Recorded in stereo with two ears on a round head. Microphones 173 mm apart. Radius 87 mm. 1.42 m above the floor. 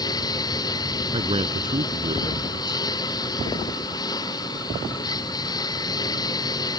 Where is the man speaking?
30° right (ahead or behind).